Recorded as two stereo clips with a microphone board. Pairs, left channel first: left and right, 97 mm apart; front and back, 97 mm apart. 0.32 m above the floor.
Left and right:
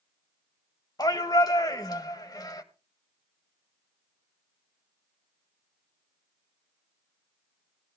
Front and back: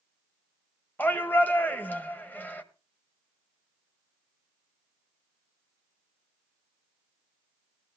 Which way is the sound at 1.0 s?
65° left.